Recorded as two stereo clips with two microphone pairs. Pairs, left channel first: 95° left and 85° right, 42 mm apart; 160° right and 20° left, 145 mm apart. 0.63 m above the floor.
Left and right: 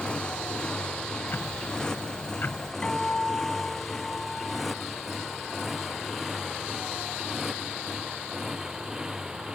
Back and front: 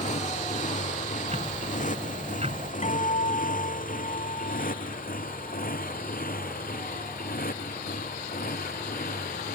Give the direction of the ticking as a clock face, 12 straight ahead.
10 o'clock.